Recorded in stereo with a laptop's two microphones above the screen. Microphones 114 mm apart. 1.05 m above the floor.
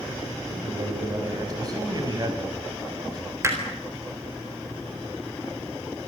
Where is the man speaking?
35° right (ahead or behind), 6 m.